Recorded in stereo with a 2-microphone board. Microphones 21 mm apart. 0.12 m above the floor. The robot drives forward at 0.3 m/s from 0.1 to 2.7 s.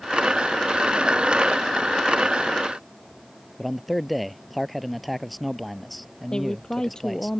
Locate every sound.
3.6 s a man speaking: centre (ahead or behind)
6.3 s a woman speaking: 30° left (ahead or behind)